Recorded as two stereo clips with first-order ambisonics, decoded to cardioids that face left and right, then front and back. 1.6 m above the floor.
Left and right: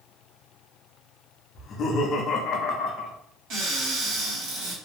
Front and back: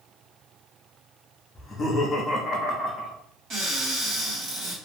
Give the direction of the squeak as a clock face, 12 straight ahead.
I don't hear a squeak.